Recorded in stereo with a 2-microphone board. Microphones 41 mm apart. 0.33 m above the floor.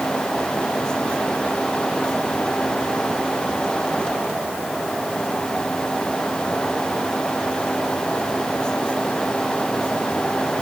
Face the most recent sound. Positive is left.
No sound to turn to.